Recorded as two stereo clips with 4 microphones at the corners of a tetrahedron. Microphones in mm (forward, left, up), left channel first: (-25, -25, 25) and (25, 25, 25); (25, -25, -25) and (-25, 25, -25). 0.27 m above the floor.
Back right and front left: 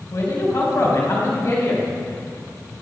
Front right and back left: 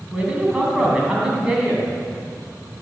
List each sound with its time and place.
0.1 s a man speaking: 150° right, 2.5 m